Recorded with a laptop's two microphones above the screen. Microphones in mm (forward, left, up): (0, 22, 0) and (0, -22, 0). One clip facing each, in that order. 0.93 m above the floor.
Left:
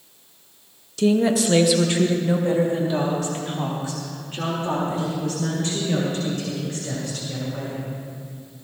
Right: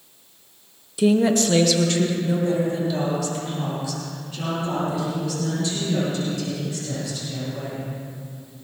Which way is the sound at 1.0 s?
15° right (ahead or behind).